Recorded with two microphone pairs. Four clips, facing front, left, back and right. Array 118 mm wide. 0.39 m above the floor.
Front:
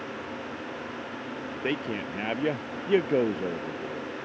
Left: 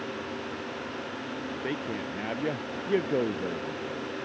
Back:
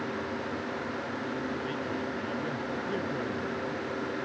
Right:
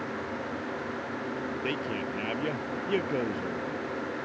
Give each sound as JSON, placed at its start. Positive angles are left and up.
{"t": 1.6, "sound": "a man speaking", "azimuth_deg": 5}